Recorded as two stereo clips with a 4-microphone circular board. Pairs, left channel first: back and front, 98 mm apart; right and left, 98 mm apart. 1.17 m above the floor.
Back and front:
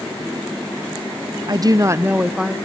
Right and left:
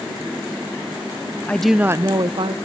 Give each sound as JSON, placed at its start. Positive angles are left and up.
{"t": 1.5, "sound": "a woman speaking", "azimuth_deg": -20, "distance_m": 0.6}